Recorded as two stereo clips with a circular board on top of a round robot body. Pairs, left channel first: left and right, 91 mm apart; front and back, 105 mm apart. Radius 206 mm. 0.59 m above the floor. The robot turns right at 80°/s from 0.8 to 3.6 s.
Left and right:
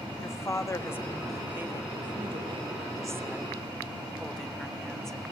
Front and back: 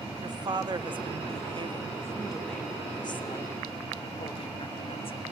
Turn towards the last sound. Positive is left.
turn(degrees=5)